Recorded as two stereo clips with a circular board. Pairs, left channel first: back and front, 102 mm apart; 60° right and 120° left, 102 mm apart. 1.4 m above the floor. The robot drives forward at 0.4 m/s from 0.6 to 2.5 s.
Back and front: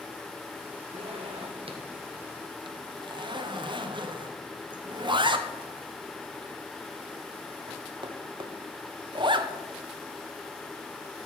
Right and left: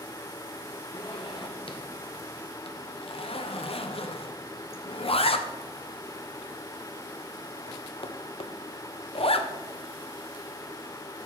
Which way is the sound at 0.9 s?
20° right.